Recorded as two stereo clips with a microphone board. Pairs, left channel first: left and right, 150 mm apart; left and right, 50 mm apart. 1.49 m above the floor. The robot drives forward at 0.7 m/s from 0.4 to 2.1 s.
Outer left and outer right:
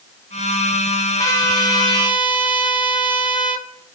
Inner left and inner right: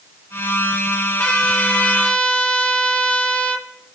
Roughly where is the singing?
I don't hear singing.